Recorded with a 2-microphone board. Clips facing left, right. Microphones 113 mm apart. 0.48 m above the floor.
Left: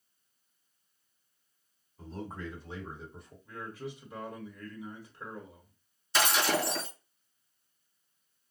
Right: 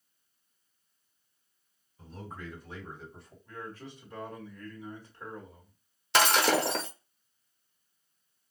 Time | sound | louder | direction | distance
2.0 | a man speaking | left 4 dB | 35° left (ahead or behind) | 1.9 m
3.5 | a man speaking | left 2 dB | 5° left (ahead or behind) | 1.4 m
6.1 | breaking glass | right 4 dB | 65° right (ahead or behind) | 0.7 m